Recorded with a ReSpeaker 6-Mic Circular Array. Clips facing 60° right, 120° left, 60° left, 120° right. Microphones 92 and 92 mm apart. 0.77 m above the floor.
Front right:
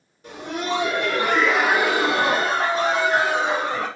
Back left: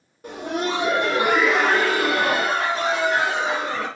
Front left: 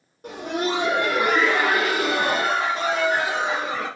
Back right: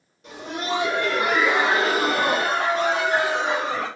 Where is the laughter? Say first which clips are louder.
Back left 2 dB, front left 4 dB; 90° left, 0.8 m; by 3.9 s 100° right, 1.5 m.